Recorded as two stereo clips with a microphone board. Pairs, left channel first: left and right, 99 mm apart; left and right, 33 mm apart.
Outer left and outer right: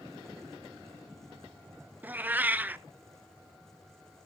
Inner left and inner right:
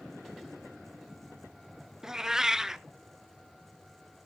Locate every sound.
2.0 s a cat meowing: 20° right (ahead or behind), 0.5 m